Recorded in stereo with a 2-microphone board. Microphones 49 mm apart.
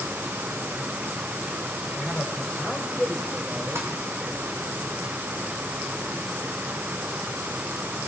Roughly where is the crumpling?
Right.